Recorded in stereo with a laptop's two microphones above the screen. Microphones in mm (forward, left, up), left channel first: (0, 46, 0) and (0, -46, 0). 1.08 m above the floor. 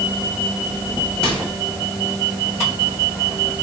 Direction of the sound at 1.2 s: 10° left (ahead or behind).